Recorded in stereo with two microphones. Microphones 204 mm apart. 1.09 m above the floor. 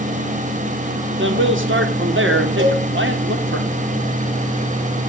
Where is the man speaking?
70° right (ahead or behind), 3 m.